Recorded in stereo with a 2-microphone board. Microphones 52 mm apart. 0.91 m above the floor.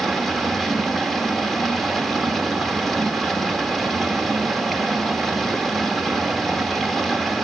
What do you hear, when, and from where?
0.0 s running water: 5° left (ahead or behind), 1.5 m